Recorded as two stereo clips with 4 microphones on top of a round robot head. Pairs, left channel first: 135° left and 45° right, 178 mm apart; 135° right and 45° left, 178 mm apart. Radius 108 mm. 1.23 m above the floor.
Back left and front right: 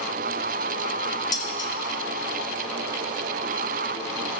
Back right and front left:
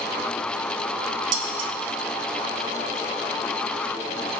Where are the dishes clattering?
65° left, 1.4 m.